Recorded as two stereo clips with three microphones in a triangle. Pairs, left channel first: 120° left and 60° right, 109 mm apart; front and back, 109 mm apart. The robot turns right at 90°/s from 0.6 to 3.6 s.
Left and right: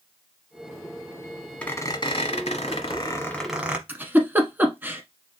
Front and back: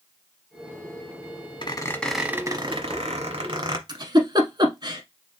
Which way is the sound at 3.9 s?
135° right.